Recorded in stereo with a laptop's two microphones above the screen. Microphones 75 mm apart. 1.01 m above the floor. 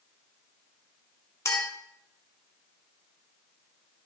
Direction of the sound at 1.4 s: 40° left (ahead or behind).